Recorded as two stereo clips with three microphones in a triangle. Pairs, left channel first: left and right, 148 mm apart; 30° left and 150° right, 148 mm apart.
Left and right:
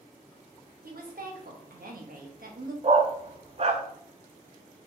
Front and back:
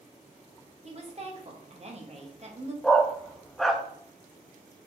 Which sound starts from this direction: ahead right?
A dog barking, at 2.8 s.